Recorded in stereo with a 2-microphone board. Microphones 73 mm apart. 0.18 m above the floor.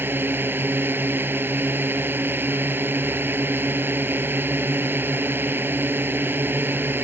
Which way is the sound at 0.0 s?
30° right (ahead or behind).